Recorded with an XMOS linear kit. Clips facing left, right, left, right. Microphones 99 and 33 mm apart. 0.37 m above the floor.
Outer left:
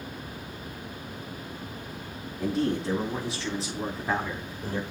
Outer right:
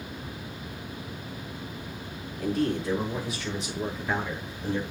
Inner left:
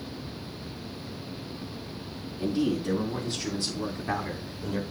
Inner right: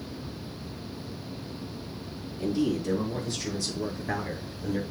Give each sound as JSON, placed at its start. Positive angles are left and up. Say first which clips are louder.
{"t": 2.4, "sound": "a man speaking", "louder": "even, even", "side_deg": 25, "distance_m": 4.5}